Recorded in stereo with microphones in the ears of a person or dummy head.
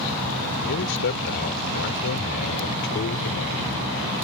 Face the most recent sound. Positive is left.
turn(degrees=55)  # may be behind; listen again after turning